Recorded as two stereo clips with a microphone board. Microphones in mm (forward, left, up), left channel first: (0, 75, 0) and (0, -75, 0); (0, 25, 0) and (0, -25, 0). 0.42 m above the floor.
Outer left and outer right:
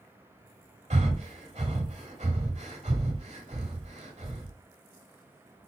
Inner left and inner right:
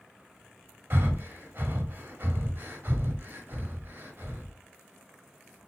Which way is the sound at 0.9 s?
50° right (ahead or behind).